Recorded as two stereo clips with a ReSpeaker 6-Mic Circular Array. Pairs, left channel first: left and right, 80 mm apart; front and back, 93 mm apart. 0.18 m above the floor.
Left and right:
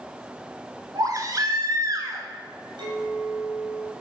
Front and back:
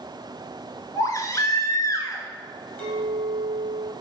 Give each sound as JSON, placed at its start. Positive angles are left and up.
{"t": 0.9, "sound": "a baby crying", "azimuth_deg": -50, "distance_m": 0.8}
{"t": 2.8, "sound": "a clink", "azimuth_deg": -70, "distance_m": 2.5}